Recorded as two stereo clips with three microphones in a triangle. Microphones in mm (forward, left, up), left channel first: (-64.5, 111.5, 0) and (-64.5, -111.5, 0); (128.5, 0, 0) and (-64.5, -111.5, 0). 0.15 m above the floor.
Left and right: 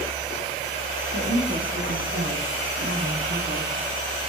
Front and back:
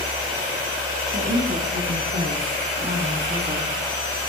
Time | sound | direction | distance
1.1 | a woman speaking | 110° right | 8 m